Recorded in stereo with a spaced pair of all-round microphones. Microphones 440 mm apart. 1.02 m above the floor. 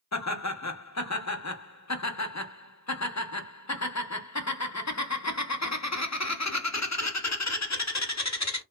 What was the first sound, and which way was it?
Laughter, 40° left (ahead or behind).